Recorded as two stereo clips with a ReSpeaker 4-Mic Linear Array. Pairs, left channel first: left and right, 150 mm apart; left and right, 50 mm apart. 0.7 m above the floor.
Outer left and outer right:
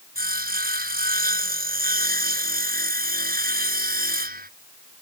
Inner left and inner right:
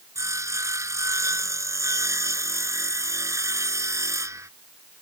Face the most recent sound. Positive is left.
turn(degrees=-80)